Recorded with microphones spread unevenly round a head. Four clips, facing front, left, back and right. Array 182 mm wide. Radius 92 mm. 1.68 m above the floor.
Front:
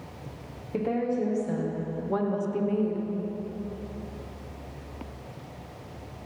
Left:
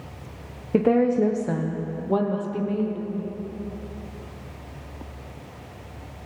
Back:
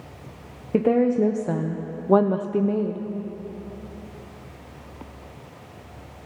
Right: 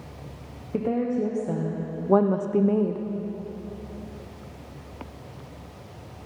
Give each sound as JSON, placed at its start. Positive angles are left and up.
{"t": 0.7, "sound": "a woman speaking", "azimuth_deg": 150, "distance_m": 1.2}